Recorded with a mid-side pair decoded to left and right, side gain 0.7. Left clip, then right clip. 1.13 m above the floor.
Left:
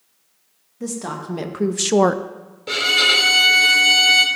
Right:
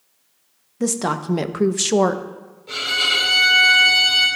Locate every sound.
0.8 s a woman speaking: 40° right, 1.2 m; by 2.2 s 25° left, 0.6 m
2.7 s a violin: 55° left, 2.5 m